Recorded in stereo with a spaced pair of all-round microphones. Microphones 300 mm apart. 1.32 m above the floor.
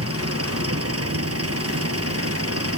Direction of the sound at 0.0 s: 50° right (ahead or behind).